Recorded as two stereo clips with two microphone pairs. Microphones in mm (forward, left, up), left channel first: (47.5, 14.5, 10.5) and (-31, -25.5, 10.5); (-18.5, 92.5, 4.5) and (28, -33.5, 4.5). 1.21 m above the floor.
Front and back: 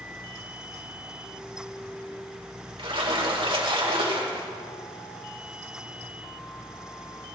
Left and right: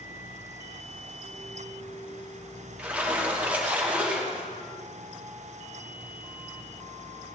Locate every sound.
2.8 s a splash: 150° right, 2.0 m